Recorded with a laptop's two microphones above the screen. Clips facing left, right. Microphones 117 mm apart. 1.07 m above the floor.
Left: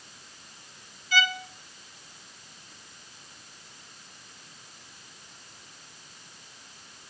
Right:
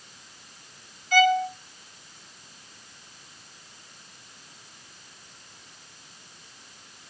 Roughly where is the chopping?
I don't hear chopping.